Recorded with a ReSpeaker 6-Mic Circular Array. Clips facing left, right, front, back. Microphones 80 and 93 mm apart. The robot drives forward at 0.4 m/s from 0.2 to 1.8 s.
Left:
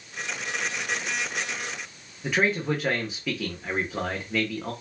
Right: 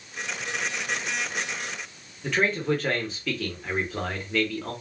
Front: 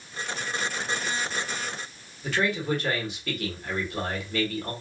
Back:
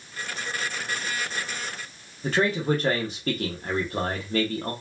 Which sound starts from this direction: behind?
A man speaking, at 2.2 s.